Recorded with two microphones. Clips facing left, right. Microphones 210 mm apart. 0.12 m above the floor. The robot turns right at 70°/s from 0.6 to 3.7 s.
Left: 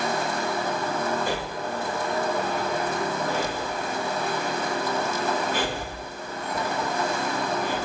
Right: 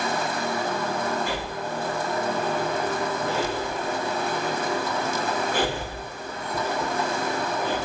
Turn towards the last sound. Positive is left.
turn(degrees=-55)  # may be behind; listen again after turning